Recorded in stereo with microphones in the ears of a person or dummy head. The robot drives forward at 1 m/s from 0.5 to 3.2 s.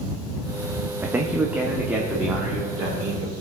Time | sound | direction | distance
1.0 | a man speaking | 15° right (ahead or behind) | 0.6 m